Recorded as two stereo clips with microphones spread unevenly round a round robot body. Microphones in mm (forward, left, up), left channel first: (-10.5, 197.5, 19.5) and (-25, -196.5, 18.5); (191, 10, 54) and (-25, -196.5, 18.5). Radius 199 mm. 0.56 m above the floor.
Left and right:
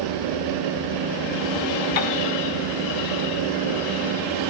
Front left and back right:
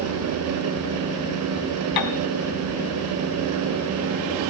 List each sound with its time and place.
2.0 s a piano: 65° left, 2.5 m